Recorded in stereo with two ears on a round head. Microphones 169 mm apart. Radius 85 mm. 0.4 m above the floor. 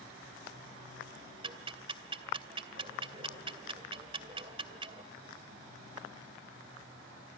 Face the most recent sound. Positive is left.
turn(degrees=-30)  # may be behind; listen again after turning